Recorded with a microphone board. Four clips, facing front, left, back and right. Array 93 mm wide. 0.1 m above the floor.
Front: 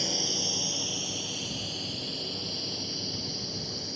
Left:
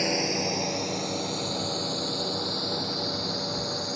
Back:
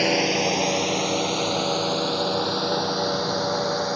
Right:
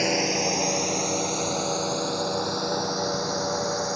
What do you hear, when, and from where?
0.0 s a drone: 170° right; by 4.0 s 160° right